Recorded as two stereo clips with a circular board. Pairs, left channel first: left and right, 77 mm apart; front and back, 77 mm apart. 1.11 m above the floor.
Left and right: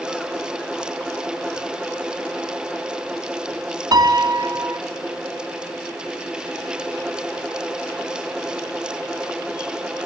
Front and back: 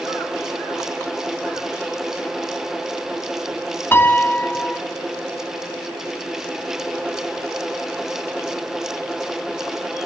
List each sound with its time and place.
3.9 s a piano: 65° right, 2 m